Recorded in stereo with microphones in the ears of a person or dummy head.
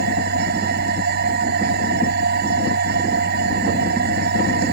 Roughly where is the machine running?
Right.